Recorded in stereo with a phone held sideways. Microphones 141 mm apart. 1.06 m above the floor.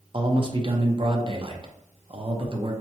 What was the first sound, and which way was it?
A man speaking, 35° right (ahead or behind).